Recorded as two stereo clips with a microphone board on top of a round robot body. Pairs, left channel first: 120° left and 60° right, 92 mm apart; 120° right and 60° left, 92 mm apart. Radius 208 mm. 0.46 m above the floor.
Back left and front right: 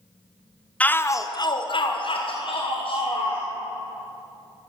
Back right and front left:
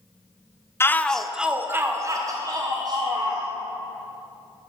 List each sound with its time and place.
0.8 s a shout: 170° right, 0.8 m; by 3.5 s 100° left, 2.0 m